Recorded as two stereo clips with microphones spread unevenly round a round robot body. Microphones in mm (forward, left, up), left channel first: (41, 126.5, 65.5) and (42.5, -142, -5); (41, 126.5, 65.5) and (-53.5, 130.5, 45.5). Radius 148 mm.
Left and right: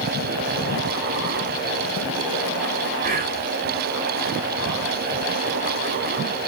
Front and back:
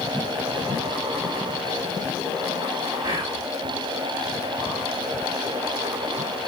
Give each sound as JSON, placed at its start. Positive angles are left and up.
{"t": 3.0, "sound": "whispering", "azimuth_deg": -140, "distance_m": 2.5}